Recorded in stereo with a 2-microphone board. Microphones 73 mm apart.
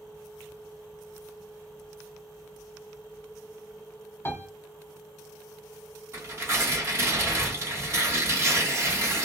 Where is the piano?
35° left (ahead or behind), 0.6 m.